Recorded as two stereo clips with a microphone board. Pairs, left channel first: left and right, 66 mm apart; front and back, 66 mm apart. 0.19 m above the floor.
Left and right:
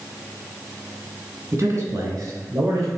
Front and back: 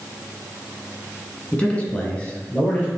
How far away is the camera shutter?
No camera shutter in this recording.